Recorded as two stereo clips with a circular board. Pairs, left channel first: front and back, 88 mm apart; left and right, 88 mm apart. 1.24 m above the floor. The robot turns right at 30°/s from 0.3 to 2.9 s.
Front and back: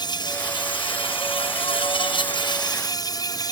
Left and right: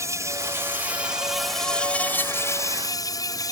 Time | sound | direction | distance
0.0 | an insect | 35° right | ?